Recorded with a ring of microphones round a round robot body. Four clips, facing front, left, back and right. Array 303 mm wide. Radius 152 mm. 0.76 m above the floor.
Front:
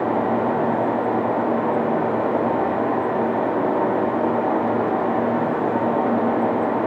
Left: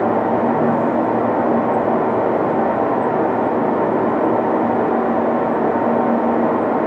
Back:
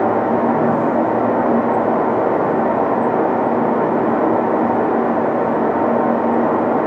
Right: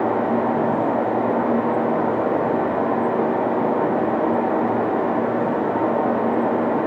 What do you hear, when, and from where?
Only background noise.